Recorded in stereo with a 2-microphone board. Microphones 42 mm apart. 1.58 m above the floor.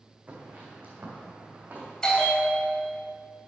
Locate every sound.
0.3 s footsteps: 40° right (ahead or behind), 4.5 m
2.0 s a bell: 15° left (ahead or behind), 2.5 m